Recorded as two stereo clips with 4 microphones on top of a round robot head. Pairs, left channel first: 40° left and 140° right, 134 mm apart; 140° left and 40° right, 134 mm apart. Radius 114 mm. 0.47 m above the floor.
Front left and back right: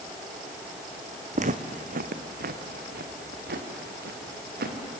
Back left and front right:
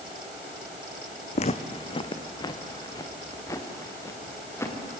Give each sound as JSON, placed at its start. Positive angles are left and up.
{"t": 1.4, "sound": "footsteps", "azimuth_deg": 180, "distance_m": 1.4}